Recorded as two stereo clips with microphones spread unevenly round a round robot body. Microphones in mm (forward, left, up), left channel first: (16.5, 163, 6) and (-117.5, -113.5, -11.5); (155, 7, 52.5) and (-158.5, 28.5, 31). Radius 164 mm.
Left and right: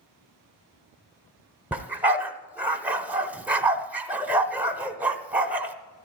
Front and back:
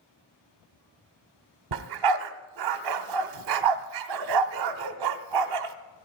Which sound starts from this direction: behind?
A dog barking, at 1.7 s.